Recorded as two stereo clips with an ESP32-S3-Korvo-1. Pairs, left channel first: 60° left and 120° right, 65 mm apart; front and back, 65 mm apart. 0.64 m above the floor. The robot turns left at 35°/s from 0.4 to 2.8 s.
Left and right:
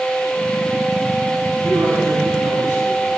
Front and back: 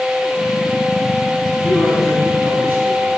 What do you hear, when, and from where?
1.6 s a man speaking: 85° right, 5.5 m; by 3.1 s 125° right, 5.5 m